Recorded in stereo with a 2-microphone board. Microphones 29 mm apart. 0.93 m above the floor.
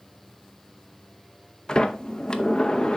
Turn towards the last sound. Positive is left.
turn(degrees=30)  # may be behind; listen again after turning